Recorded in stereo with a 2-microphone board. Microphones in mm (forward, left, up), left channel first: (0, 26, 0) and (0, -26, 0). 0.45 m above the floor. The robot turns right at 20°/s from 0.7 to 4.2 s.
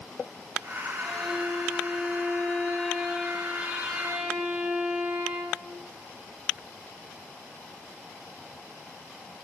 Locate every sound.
1.0 s a violin: 160° left, 4 m; by 5.7 s 135° right, 4 m